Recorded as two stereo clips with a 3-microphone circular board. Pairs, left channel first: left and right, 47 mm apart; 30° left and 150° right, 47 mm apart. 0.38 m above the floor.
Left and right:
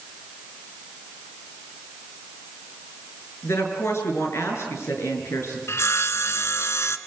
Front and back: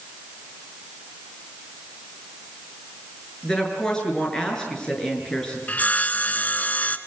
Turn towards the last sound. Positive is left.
turn(degrees=85)